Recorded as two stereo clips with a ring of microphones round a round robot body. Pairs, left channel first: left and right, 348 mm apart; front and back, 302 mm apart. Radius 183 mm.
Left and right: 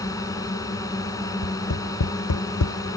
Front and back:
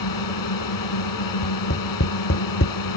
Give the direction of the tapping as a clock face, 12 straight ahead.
10 o'clock.